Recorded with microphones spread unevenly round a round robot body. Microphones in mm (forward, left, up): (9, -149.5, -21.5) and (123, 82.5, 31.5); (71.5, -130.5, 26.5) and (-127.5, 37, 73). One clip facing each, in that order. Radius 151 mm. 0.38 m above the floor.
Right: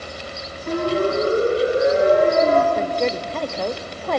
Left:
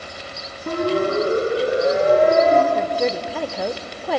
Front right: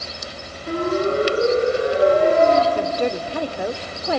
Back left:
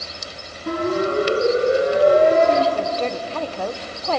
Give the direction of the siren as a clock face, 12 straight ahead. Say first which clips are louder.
Even, front right 1 dB; 9 o'clock.